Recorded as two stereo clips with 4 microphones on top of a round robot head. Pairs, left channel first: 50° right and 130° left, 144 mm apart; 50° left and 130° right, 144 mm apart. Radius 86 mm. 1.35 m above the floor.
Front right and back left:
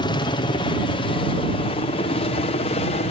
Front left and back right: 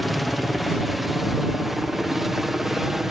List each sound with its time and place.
0.0 s a helicopter: 40° right